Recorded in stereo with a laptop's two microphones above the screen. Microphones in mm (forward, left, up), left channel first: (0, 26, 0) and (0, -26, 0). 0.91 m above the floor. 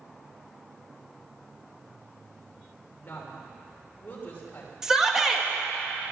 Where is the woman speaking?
35° left (ahead or behind), 3 m.